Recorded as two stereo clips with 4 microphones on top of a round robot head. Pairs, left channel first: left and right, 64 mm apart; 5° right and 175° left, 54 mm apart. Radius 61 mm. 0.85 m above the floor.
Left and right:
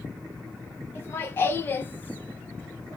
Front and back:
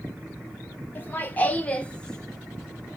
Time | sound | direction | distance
0.9 | laughter | 40° left | 1.3 m